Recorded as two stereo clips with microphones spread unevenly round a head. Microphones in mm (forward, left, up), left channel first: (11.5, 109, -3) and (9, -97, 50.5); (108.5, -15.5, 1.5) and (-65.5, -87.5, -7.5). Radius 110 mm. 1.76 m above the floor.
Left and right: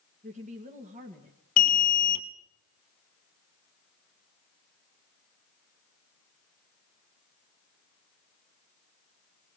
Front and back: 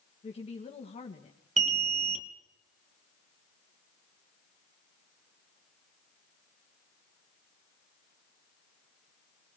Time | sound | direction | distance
0.2 | a woman speaking | 35° right | 2.5 m
1.6 | an alarm | 140° left | 1.2 m